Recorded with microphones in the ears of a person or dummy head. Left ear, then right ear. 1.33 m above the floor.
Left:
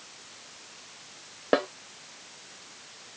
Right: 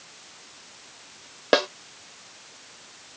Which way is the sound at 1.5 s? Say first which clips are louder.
Right 4 dB; 80° right.